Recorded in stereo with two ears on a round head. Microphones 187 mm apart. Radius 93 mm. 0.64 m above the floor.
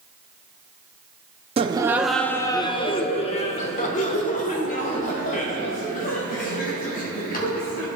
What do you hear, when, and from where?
1.6 s laughter: 30° right (ahead or behind), 0.5 m; by 7.9 s 45° left (ahead or behind), 4 m